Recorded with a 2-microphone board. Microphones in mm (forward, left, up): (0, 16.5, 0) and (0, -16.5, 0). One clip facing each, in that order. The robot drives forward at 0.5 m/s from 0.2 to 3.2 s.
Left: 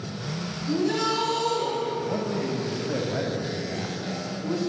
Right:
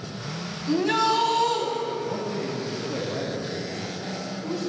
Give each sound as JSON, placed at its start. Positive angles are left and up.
{"t": 0.7, "sound": "a shout", "side_deg": -55, "distance_m": 2.5}
{"t": 2.0, "sound": "a man speaking", "side_deg": 45, "distance_m": 1.9}